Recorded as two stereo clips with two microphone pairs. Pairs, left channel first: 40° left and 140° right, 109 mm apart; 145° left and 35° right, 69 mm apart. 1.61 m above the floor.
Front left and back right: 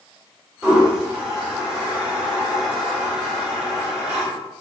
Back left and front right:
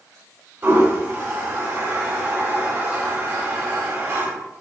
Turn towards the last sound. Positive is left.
turn(degrees=-65)